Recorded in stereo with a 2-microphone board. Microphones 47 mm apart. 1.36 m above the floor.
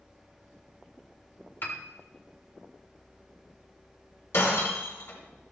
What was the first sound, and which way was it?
A piano, 45° left (ahead or behind).